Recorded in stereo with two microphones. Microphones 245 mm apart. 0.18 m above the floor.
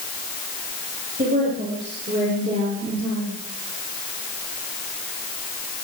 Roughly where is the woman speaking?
Right.